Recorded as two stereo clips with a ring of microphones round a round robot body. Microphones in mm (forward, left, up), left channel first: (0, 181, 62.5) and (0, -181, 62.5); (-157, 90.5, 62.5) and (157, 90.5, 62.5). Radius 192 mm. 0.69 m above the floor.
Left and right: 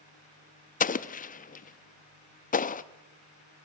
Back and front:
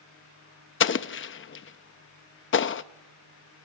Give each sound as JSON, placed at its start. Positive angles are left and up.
{"t": 0.8, "sound": "an explosion", "azimuth_deg": 150, "distance_m": 0.6}